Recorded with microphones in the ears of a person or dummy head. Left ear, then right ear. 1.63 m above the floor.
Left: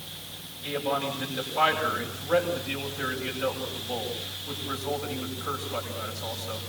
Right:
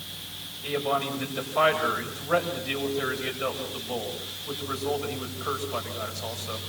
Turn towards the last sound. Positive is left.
turn(degrees=-25)  # may be behind; listen again after turning